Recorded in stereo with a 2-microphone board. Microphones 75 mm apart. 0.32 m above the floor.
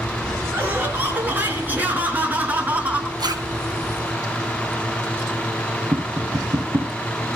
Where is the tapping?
50° right (ahead or behind), 3 m.